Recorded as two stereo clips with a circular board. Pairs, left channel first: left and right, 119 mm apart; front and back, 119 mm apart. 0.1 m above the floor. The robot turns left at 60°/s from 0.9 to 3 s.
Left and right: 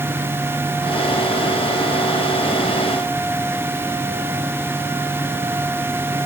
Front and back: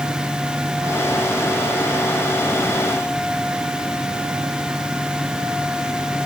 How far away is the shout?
I don't hear a shout.